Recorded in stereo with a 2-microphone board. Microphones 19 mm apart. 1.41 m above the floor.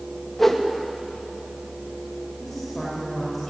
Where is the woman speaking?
5° left (ahead or behind), 6 m.